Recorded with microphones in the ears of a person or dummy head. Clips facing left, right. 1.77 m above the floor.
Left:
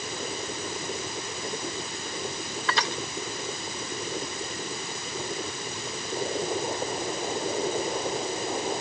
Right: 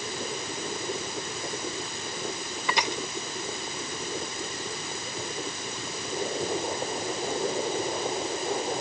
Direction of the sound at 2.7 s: 15° right (ahead or behind).